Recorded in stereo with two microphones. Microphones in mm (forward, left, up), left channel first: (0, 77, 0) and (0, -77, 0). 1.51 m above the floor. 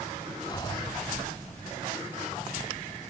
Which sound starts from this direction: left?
Breathing, at 0.5 s.